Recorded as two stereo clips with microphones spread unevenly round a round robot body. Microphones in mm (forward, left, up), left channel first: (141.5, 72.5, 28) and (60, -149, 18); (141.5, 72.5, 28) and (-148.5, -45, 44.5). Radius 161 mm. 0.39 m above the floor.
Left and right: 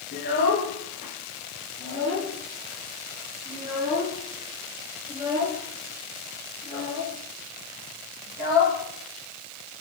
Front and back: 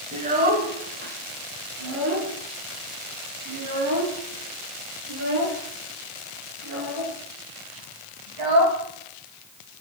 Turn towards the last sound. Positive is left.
turn(degrees=-175)